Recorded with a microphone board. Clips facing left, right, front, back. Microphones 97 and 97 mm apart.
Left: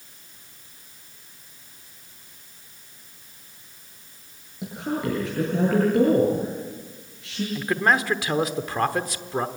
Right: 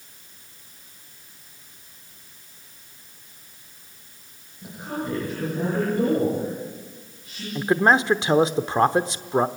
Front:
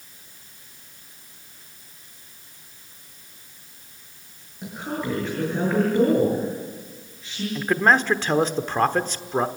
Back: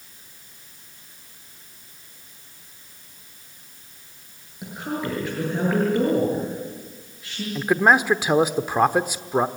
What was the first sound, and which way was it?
A woman speaking, 95° left.